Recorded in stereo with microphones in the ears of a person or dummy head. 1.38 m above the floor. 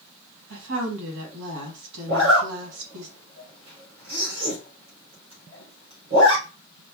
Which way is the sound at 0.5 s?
75° right (ahead or behind).